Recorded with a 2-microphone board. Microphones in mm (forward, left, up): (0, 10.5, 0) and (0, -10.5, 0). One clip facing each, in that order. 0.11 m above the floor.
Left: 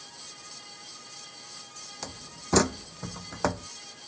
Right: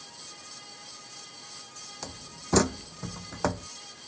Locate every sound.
2.0 s a door slam: 10° left (ahead or behind)